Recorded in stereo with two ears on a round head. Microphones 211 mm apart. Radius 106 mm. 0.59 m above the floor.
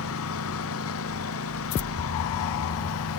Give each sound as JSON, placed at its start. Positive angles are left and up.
{"t": 0.0, "sound": "a lawn mower", "side_deg": 70}